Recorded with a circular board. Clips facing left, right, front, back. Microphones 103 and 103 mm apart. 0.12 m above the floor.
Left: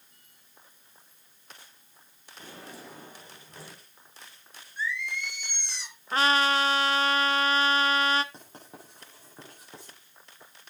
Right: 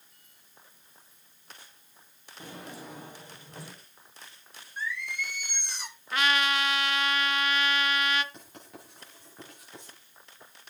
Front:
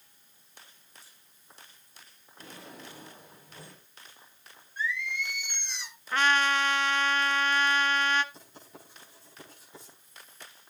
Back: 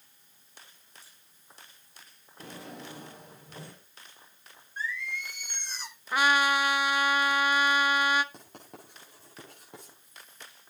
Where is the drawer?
165° right, 5 m.